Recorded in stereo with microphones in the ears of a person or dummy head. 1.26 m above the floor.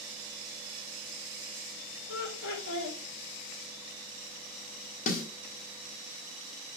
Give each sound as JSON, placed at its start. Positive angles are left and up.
{"t": 2.1, "sound": "laughter", "side_deg": 80, "distance_m": 2.5}
{"t": 5.1, "sound": "a snare drum", "side_deg": 40, "distance_m": 1.5}